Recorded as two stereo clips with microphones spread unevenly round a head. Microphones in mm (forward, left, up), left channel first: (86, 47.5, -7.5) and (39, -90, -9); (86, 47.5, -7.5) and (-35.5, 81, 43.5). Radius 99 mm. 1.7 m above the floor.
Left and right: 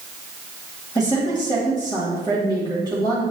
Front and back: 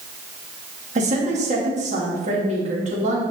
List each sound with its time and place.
0.9 s a woman speaking: 145° left, 3.5 m